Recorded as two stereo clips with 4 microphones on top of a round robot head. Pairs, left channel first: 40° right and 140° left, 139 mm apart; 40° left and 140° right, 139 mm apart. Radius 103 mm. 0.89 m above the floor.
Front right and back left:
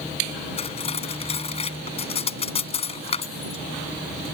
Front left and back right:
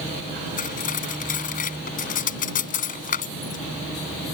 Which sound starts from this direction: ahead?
Cutlery clinking, at 0.6 s.